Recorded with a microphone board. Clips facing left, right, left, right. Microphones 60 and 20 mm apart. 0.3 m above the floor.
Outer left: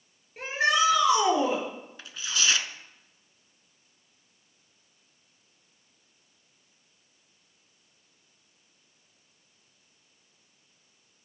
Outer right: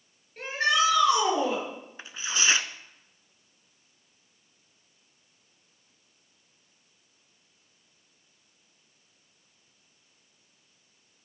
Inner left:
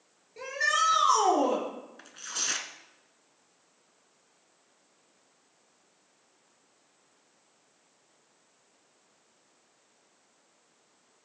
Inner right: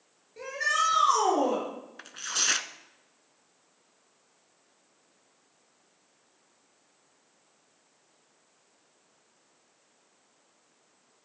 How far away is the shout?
About 4 m.